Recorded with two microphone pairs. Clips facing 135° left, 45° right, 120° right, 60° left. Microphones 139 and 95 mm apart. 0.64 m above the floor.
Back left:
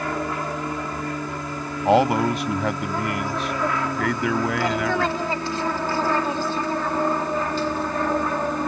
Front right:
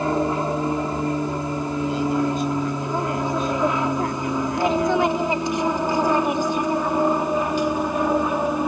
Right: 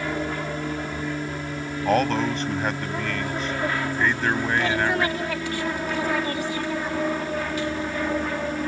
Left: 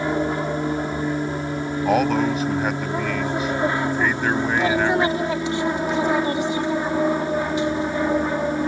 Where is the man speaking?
145° left.